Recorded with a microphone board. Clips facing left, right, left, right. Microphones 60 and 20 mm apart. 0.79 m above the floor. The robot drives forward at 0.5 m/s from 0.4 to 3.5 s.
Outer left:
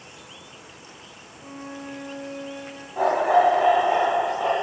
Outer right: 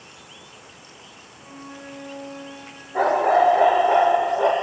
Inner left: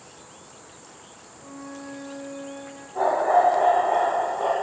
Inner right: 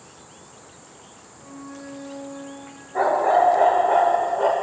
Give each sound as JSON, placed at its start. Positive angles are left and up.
{"t": 1.3, "sound": "a flute", "side_deg": -5, "distance_m": 2.0}
{"t": 3.0, "sound": "a dog barking", "side_deg": -70, "distance_m": 1.1}